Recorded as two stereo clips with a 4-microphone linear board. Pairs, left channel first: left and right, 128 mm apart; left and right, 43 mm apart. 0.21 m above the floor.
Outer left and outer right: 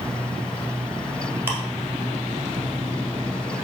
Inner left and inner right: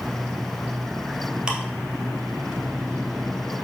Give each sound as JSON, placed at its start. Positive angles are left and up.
{"t": 1.5, "sound": "ticking", "side_deg": -15, "distance_m": 1.7}